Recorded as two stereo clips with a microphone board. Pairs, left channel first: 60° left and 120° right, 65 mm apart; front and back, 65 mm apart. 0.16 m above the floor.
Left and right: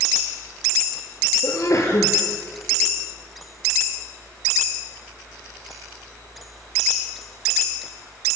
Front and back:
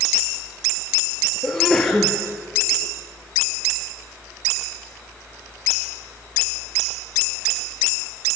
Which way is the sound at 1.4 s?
85° left.